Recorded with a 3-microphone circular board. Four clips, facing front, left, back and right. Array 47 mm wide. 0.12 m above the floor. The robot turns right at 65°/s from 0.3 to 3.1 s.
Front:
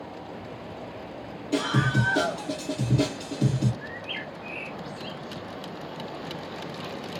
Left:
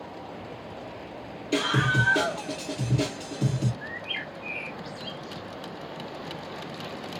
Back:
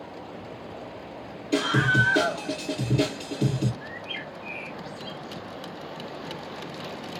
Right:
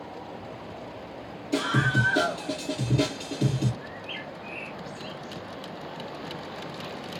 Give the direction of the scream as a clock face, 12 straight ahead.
8 o'clock.